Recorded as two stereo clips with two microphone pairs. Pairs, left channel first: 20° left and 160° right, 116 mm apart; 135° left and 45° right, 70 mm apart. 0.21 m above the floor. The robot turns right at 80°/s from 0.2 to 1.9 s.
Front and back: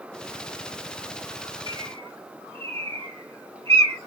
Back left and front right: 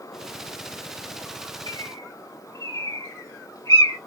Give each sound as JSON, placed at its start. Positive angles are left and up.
{"t": 1.7, "sound": "a bird", "azimuth_deg": 155, "distance_m": 1.5}